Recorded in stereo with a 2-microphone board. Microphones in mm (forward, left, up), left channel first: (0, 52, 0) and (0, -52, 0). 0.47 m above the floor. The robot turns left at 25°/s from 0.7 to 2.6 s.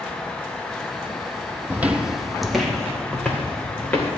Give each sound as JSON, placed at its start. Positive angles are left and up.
{"t": 1.7, "sound": "footsteps", "side_deg": -20, "distance_m": 0.7}